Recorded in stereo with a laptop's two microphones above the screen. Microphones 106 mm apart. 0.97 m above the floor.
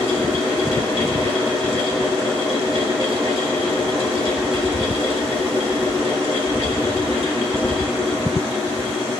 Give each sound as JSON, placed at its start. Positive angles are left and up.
{"t": 0.0, "sound": "a fan", "side_deg": 65, "distance_m": 2.5}